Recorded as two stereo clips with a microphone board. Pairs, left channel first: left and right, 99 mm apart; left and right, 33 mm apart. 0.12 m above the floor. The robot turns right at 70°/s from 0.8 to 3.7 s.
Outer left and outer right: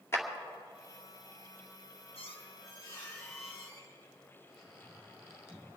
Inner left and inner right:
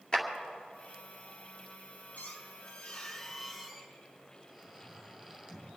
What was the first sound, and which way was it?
A clap, 25° left (ahead or behind).